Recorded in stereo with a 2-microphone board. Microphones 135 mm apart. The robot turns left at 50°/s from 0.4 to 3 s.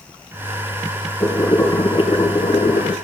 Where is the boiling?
Straight behind, 4 m; by 2.9 s 90° left, 4 m.